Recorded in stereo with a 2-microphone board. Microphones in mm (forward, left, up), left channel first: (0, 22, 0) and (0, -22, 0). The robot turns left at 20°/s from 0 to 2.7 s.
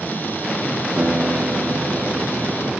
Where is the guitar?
120° right, 4.5 m; by 2.7 s 150° right, 4.5 m.